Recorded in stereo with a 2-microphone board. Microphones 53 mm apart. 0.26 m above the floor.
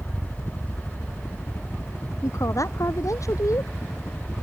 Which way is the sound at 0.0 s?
60° left (ahead or behind).